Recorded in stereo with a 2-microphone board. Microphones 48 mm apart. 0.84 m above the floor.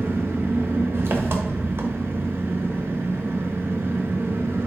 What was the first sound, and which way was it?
An engine running, 50° right (ahead or behind).